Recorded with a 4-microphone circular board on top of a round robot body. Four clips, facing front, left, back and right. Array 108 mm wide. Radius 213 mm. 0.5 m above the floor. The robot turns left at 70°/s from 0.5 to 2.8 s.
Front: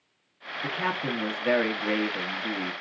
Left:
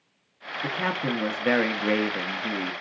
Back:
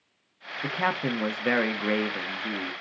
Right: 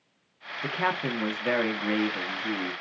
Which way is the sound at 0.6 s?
150° right.